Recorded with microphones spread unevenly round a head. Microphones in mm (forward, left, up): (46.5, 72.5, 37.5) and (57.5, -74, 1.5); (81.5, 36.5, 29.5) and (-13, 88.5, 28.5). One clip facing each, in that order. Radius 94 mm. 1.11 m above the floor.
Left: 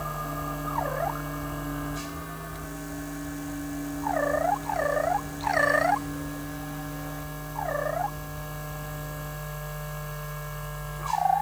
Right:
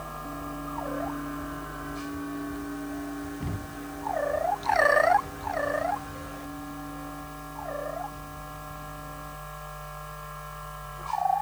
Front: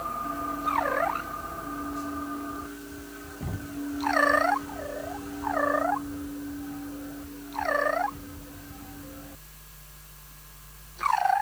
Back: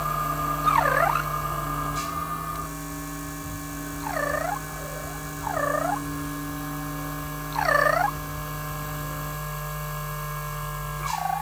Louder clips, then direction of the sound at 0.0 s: Left 3 dB, back 5 dB; 150° left.